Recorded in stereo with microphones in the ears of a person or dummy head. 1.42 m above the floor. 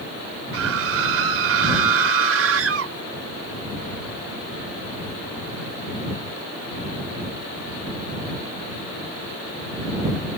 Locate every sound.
0.5 s a scream: 80° right